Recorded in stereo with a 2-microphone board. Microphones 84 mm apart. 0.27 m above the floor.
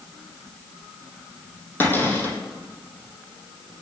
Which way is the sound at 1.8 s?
20° left (ahead or behind).